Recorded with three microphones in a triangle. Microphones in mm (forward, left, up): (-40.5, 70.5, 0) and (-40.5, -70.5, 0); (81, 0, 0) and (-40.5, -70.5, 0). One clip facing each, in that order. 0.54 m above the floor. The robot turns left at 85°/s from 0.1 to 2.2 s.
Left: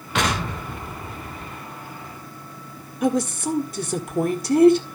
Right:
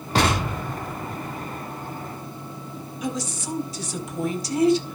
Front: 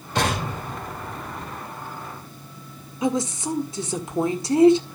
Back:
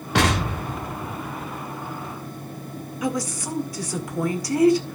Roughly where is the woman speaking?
Left.